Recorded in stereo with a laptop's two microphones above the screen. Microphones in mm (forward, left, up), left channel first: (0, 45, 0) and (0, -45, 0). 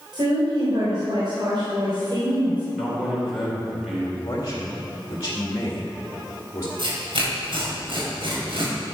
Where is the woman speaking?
65° right (ahead or behind), 3 m.